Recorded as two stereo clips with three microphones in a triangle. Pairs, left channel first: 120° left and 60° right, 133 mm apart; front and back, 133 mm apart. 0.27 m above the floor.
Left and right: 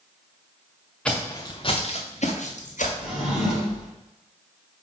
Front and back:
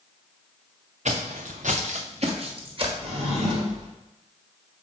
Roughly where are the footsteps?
Behind right.